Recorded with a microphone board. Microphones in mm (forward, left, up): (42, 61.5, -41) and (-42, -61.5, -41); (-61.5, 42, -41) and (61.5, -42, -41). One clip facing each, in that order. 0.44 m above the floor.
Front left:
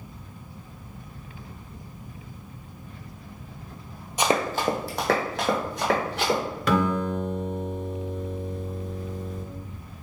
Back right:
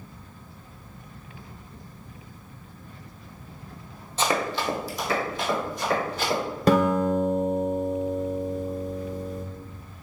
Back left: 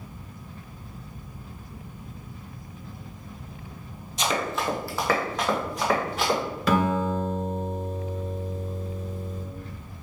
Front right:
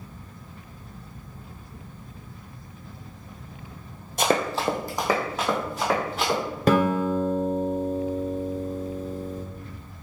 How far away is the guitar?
About 1.0 m.